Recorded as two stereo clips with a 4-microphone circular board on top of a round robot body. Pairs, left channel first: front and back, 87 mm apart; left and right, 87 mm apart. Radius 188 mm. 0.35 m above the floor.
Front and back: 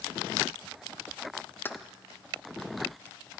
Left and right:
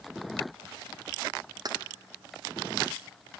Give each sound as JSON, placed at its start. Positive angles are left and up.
{"t": 1.6, "sound": "keys jangling", "azimuth_deg": -65, "distance_m": 0.7}